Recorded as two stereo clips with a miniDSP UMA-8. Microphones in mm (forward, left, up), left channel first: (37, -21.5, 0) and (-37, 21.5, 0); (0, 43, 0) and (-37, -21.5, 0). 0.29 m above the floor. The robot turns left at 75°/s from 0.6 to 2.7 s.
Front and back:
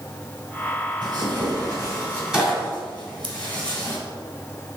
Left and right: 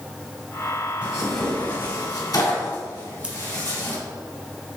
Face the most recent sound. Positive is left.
turn(degrees=165)